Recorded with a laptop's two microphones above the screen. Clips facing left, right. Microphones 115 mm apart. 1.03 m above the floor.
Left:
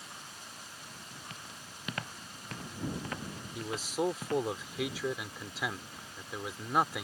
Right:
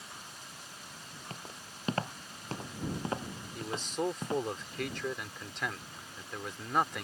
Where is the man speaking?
5° left (ahead or behind).